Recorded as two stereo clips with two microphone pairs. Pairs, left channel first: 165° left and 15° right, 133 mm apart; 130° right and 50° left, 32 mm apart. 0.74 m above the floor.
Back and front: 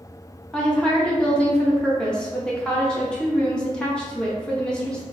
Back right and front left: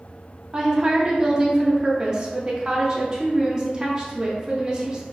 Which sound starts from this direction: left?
A woman speaking, at 0.5 s.